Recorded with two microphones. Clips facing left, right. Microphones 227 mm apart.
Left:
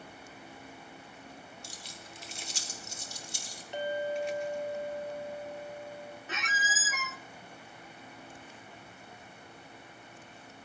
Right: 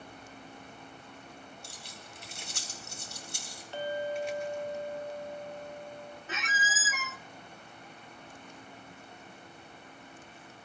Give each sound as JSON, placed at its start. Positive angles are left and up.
{"t": 1.6, "sound": "keys jangling", "side_deg": -55, "distance_m": 4.0}
{"t": 3.7, "sound": "a clink", "side_deg": 15, "distance_m": 3.0}
{"t": 6.3, "sound": "a squeak", "side_deg": 0, "distance_m": 0.6}